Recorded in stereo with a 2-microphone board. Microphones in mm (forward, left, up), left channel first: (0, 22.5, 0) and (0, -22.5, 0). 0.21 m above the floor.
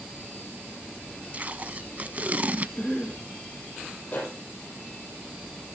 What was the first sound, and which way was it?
Tape being pulled, 35° right (ahead or behind).